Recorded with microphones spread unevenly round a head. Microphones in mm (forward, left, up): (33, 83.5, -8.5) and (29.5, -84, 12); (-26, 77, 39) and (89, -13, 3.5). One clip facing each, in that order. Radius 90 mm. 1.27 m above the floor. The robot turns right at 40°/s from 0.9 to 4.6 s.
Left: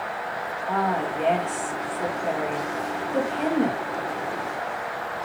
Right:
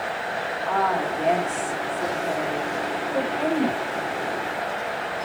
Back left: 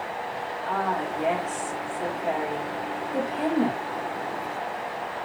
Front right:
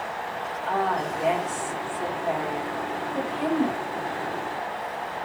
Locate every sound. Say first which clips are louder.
0.7 s a woman speaking: right 1 dB, front right 2 dB; 15° left, 5.5 m; by 3.8 s 135° left, 5.5 m